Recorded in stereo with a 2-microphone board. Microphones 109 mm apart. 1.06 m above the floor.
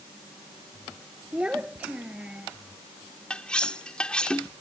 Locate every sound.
1.3 s a child speaking: 10° right (ahead or behind)
3.3 s cutlery clinking: 10° left (ahead or behind)